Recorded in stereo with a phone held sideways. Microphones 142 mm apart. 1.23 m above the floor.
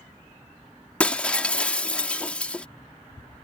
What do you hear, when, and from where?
1.0 s breaking glass: 10° left (ahead or behind)